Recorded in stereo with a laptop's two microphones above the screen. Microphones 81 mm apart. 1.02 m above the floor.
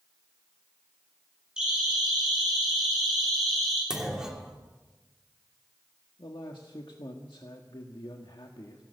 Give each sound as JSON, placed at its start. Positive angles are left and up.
{"t": 1.6, "sound": "a siren", "side_deg": -10, "distance_m": 10.0}
{"t": 3.9, "sound": "a clunk", "side_deg": -5, "distance_m": 2.5}
{"t": 6.2, "sound": "a man speaking", "side_deg": 75, "distance_m": 1.7}